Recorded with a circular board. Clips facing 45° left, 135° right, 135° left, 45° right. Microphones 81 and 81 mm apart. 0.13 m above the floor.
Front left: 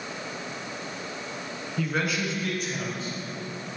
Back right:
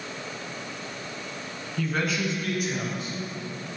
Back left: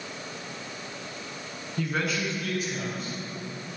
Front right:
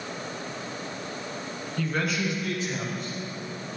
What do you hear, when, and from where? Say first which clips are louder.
1.8 s a man speaking: back right 1 dB, front right 1 dB; 105° left, 1.1 m; by 3.1 s 65° right, 1.6 m